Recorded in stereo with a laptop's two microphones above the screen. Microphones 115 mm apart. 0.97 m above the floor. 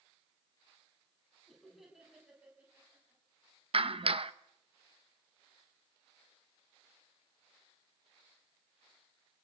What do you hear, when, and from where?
1.5 s laughter: 5° left (ahead or behind), 7 m; by 3.2 s 20° right (ahead or behind), 7 m
3.7 s a clap: 55° right (ahead or behind), 0.8 m